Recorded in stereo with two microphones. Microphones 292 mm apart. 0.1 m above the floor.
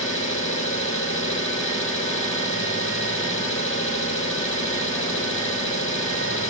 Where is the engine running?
45° left (ahead or behind), 2.5 m.